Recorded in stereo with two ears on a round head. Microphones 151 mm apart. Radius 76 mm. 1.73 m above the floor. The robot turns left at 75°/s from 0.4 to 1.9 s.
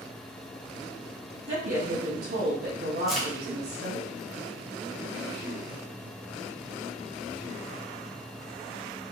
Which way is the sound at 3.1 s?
Centre (ahead or behind).